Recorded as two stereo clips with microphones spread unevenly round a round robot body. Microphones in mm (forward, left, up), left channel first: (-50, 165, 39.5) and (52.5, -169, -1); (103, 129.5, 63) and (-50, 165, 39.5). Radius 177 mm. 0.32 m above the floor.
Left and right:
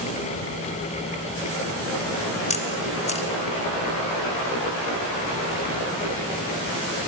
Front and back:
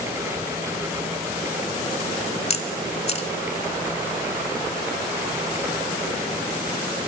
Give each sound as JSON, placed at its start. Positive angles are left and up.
{"t": 2.5, "sound": "a camera shutter", "azimuth_deg": 35, "distance_m": 3.0}